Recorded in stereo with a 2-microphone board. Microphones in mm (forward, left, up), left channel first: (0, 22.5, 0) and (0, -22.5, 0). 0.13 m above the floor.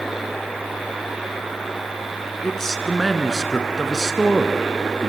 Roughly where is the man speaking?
Centre.